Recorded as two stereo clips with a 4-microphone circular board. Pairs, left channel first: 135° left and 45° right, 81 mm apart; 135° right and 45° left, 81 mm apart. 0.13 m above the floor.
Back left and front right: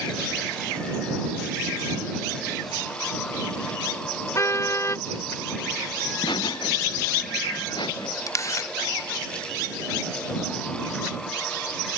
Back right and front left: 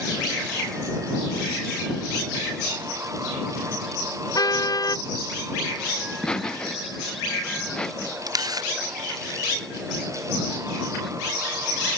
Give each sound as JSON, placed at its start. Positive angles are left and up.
{"t": 4.3, "sound": "a car horn", "azimuth_deg": -175}
{"t": 6.0, "sound": "laughter", "azimuth_deg": 145}
{"t": 8.3, "sound": "a camera shutter", "azimuth_deg": 85}